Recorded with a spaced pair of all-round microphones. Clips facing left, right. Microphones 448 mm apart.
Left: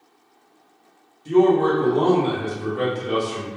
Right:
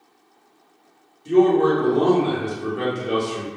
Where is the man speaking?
5° left (ahead or behind), 0.7 m.